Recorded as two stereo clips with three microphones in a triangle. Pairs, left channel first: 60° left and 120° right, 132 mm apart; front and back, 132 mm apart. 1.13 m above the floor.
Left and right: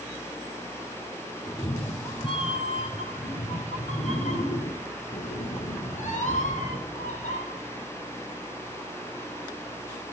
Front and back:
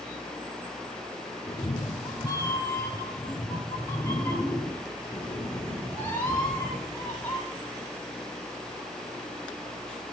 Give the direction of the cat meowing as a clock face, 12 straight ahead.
11 o'clock.